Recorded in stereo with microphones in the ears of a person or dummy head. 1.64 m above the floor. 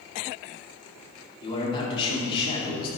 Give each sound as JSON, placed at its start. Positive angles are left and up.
{"t": 1.4, "sound": "a man speaking", "side_deg": 35, "distance_m": 4.5}